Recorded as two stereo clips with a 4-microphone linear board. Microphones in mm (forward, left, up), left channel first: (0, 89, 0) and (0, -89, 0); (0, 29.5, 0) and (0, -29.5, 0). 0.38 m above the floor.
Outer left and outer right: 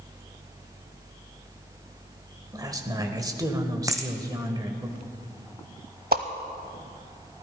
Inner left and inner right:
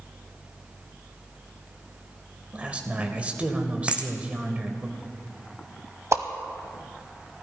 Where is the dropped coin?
20° right (ahead or behind), 1.4 m.